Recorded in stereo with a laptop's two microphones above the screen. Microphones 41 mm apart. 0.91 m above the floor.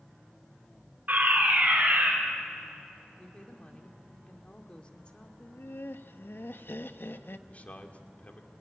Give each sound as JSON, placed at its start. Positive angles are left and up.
{"t": 1.1, "sound": "a fire alarm", "side_deg": -50, "distance_m": 5.0}
{"t": 3.2, "sound": "a woman speaking", "side_deg": 30, "distance_m": 2.0}
{"t": 5.4, "sound": "laughter", "side_deg": 65, "distance_m": 0.8}
{"t": 7.5, "sound": "a man speaking", "side_deg": 40, "distance_m": 2.0}